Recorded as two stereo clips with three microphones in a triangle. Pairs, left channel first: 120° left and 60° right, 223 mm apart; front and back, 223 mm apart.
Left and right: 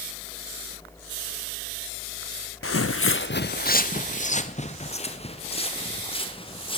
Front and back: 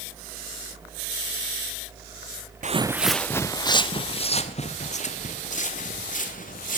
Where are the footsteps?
130° left, 0.5 m; by 6.8 s 55° left, 4.5 m.